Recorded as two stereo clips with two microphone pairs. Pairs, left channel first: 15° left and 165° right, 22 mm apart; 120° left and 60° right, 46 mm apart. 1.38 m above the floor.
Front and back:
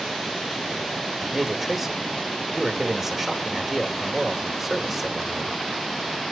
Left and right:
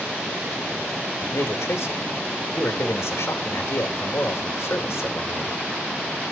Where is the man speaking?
110° left, 2.0 m.